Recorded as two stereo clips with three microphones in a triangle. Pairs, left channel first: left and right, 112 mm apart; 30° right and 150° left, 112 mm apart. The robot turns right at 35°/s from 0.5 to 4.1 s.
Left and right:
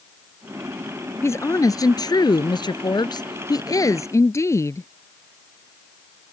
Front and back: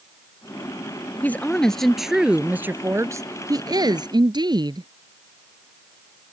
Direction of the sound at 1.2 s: 35° left.